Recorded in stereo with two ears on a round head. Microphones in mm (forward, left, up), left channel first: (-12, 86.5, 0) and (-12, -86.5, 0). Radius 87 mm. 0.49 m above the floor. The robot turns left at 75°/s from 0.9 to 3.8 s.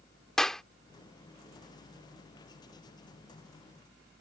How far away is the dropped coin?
I don't hear a dropped coin.